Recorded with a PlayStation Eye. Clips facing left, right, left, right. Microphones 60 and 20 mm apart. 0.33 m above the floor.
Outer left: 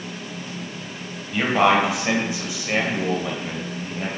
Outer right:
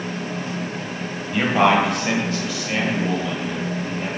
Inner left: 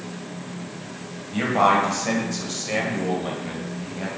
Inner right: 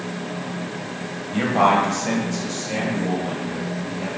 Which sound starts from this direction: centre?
A man speaking, at 1.3 s.